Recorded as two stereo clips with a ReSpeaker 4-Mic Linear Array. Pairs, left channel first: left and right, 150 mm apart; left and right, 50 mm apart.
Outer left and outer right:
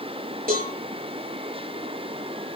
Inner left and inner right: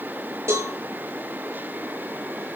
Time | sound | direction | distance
0.5 | a cowbell | 75° right (ahead or behind) | 7 m